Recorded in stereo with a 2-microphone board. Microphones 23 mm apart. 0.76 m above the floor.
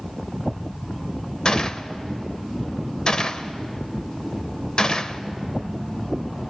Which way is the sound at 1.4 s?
40° left (ahead or behind).